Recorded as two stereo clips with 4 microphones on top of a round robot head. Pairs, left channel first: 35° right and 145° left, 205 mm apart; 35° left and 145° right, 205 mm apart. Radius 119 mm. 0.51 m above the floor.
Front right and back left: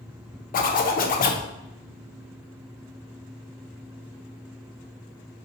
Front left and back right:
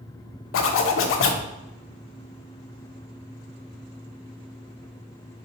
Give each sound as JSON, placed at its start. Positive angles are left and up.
{"t": 0.5, "sound": "a zipper", "azimuth_deg": 15, "distance_m": 0.5}